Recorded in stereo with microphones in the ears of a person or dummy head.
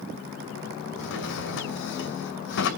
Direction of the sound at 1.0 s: 70° left (ahead or behind).